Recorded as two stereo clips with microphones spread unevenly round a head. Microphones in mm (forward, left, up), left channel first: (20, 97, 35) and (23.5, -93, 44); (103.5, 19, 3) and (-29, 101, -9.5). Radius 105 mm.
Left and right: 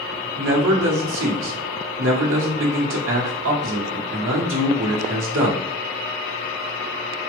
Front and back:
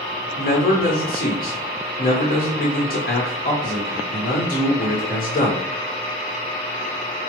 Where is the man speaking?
85° right, 1.2 m.